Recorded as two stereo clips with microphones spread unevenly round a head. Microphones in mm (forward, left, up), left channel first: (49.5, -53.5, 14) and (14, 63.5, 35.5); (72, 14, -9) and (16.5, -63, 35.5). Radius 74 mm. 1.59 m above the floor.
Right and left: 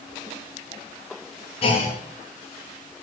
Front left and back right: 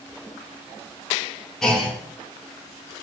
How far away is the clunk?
About 2.5 m.